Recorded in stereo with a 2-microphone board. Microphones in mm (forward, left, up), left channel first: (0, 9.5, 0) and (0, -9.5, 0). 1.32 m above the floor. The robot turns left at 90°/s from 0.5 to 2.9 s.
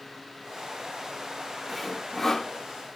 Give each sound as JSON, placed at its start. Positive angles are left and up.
{"t": 1.7, "sound": "sawing", "side_deg": 5, "distance_m": 1.0}